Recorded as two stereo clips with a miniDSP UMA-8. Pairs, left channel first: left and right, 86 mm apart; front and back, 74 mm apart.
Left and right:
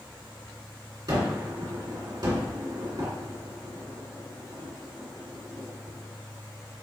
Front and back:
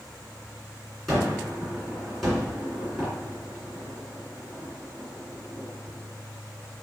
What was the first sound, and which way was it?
A gunshot, 90° right.